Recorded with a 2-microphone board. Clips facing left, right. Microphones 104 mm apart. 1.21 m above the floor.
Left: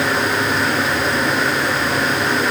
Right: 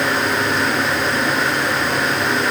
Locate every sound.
Only background noise.